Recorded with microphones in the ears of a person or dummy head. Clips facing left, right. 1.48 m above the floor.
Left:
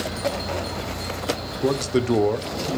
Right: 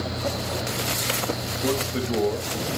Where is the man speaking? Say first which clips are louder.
Left 5 dB; 45° left (ahead or behind), 0.7 m; by 2.8 s 70° left (ahead or behind), 1.0 m.